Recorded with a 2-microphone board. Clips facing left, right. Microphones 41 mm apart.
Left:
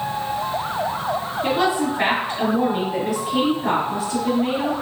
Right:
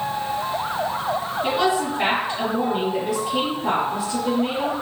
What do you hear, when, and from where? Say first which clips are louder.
1.4 s a woman speaking: left 1 dB; 35° left (ahead or behind), 1.9 m